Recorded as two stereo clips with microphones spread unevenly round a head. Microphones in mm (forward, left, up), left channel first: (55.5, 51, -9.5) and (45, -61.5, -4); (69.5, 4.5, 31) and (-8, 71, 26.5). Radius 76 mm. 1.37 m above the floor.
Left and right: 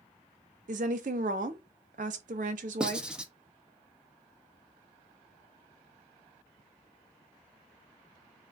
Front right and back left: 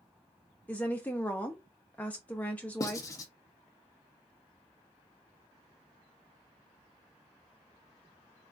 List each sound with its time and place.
0.7 s a woman speaking: 120° right, 0.5 m
2.8 s writing: 20° right, 0.6 m